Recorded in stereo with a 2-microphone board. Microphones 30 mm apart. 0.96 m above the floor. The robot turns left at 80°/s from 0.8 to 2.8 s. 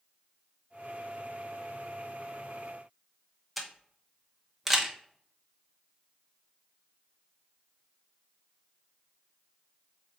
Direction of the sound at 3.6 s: 5° right (ahead or behind).